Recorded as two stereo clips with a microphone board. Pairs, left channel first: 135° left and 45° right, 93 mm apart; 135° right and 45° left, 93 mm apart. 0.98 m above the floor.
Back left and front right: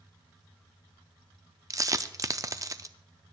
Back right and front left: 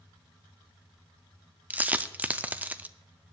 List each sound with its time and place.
1.7 s a dropped coin: 20° right, 0.5 m